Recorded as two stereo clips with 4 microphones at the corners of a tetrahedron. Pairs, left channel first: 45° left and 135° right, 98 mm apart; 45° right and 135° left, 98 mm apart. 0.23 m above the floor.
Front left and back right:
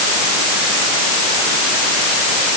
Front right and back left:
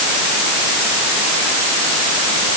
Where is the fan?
I don't hear a fan.